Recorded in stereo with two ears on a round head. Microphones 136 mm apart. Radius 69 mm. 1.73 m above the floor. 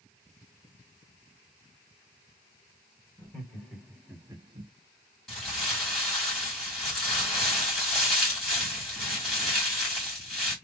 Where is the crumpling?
5° left (ahead or behind), 2 m.